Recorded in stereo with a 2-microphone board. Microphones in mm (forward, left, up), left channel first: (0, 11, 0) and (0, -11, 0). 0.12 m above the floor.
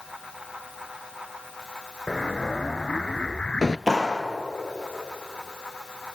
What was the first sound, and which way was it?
An explosion, 45° left (ahead or behind).